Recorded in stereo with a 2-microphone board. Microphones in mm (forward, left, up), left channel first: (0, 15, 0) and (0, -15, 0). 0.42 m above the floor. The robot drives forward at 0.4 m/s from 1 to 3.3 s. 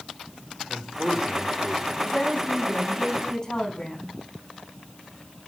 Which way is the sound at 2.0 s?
15° left (ahead or behind).